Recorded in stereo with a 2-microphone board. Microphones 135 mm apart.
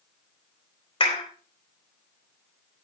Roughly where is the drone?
I don't hear a drone.